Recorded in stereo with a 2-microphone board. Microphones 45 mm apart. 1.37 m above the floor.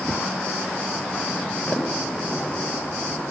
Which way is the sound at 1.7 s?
30° left (ahead or behind).